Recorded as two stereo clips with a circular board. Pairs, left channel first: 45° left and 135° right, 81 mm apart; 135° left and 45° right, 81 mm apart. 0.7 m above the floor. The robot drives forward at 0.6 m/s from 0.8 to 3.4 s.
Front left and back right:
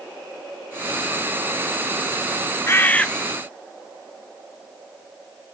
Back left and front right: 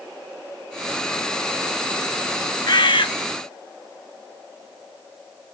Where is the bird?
100° left, 0.5 m; by 3.1 s 125° left, 0.6 m.